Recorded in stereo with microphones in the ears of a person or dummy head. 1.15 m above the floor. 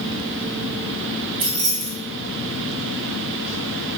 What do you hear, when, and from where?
1.4 s keys jangling: 45° right (ahead or behind), 1.3 m